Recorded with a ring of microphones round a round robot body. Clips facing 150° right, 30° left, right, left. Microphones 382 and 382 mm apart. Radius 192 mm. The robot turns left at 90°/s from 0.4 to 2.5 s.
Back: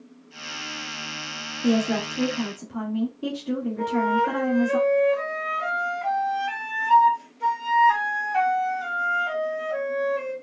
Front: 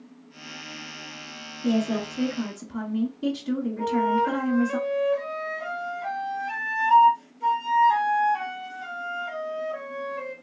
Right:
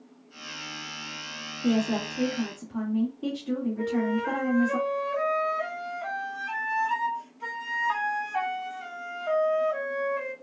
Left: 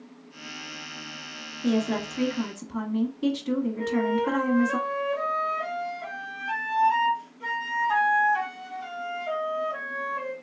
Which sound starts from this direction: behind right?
A flute, at 3.8 s.